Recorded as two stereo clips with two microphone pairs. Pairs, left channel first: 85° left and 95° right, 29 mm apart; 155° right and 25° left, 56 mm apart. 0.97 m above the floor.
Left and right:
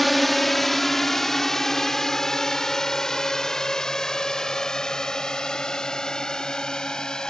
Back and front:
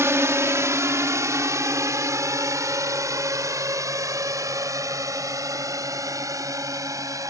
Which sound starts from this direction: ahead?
A drone, at 0.0 s.